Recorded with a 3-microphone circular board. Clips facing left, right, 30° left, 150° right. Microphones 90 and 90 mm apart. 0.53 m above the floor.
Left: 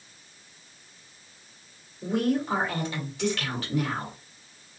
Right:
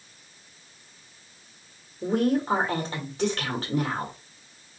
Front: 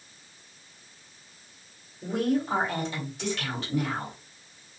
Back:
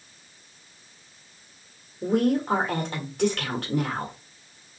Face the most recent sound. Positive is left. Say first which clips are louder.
# right 2 dB, back 4 dB
turn(degrees=-135)